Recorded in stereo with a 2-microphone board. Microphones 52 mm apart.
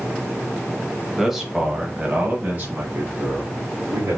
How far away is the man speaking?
About 1.0 m.